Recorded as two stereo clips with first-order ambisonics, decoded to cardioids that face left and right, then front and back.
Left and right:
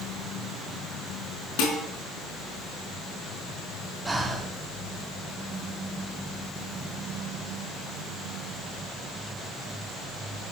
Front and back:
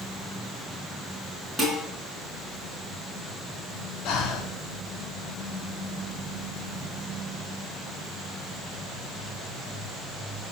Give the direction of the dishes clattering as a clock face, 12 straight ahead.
9 o'clock.